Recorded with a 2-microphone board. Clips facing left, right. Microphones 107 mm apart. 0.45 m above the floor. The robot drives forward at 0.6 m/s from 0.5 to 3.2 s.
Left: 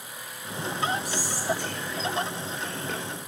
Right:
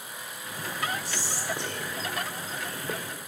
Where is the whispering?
30° right (ahead or behind), 1.3 m; by 3.0 s 20° right (ahead or behind), 1.8 m.